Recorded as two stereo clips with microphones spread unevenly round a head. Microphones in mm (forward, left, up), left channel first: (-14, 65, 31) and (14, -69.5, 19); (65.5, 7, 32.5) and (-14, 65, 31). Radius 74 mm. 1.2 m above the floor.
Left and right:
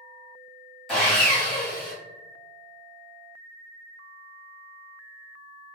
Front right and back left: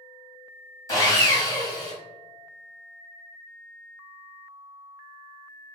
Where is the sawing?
15° left, 1.0 m.